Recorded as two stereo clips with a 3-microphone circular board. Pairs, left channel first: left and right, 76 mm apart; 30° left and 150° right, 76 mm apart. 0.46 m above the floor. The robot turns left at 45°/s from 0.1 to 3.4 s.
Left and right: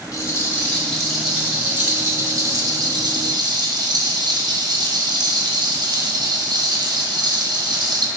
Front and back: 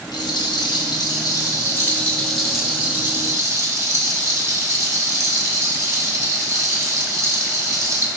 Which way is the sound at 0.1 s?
45° left.